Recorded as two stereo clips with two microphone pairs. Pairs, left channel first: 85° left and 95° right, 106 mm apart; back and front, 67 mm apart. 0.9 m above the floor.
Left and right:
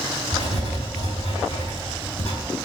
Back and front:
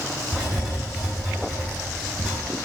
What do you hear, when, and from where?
0.3 s writing: 85° left, 7.5 m